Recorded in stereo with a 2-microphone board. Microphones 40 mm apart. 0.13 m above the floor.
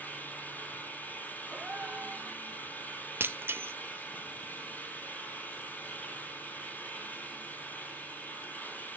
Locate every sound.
0.0 s an engine running: 45° left (ahead or behind), 1.7 m
1.5 s a gasp: 35° right (ahead or behind), 1.3 m
3.2 s breaking glass: 70° right (ahead or behind), 0.9 m